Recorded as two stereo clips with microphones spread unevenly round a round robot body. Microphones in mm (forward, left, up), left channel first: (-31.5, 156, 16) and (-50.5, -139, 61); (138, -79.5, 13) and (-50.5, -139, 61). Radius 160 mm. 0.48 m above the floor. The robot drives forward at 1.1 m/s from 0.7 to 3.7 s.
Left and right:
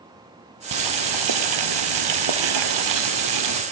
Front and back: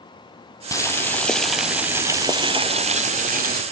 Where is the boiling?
60° right, 3 m; by 3.6 s 120° right, 3 m.